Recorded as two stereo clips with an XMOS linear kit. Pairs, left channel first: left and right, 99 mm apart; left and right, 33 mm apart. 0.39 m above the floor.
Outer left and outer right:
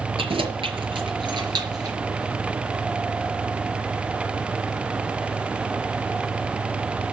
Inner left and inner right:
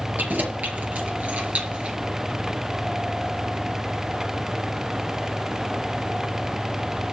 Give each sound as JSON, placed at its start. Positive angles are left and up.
{"t": 0.2, "sound": "keys jangling", "side_deg": -70, "distance_m": 5.0}